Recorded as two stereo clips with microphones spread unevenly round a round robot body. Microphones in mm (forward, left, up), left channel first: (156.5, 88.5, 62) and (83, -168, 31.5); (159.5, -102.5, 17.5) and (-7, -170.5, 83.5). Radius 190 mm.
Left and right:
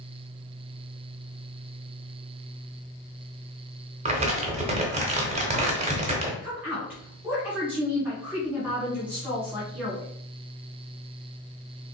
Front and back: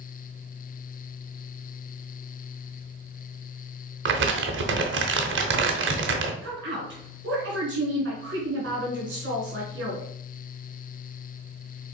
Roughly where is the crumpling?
Behind.